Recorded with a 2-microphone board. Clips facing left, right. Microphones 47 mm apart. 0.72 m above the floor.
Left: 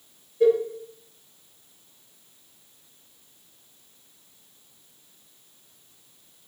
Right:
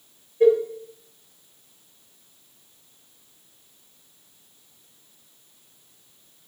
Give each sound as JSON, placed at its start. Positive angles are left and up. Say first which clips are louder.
{"t": 0.4, "sound": "a cowbell", "louder": "right 2 dB", "side_deg": -15, "distance_m": 0.9}